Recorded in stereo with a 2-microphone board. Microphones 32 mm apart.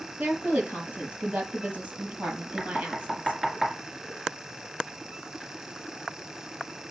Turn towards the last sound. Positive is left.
turn(degrees=-25)  # may be behind; listen again after turning